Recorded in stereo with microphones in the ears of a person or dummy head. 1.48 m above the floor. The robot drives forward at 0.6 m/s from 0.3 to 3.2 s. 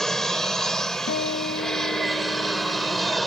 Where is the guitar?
55° left (ahead or behind); by 3.2 s 25° left (ahead or behind).